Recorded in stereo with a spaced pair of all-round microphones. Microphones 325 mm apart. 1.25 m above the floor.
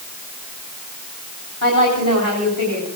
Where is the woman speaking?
80° left, 3.5 m.